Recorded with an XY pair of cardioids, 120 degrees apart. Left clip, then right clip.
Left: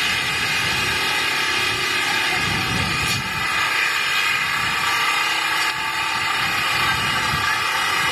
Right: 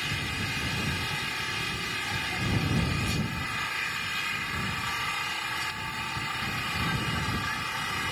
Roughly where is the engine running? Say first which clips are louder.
Left 11 dB; ahead left.